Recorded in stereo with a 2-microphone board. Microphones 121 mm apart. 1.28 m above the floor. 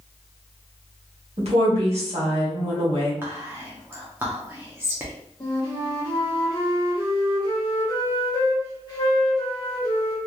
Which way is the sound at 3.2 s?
20° right (ahead or behind).